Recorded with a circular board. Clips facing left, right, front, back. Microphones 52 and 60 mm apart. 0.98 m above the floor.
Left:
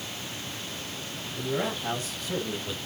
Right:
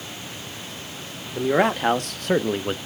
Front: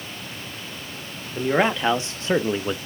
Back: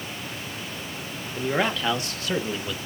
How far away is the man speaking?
About 1.3 m.